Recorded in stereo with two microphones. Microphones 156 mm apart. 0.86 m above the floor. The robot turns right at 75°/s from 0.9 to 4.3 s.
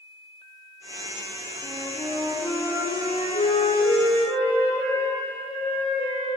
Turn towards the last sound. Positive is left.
turn(degrees=145)